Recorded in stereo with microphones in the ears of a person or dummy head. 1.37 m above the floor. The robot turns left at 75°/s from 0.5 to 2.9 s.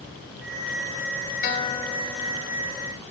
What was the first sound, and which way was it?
A guitar, 50° left.